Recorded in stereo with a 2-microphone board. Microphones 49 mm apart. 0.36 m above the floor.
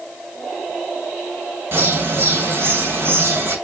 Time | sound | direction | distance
1.7 | a bird | 50° right (ahead or behind) | 1.6 m